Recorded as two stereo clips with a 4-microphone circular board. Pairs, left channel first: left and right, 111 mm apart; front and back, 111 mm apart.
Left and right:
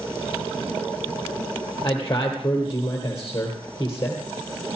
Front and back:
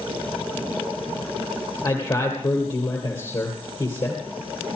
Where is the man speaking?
30° left, 3 m.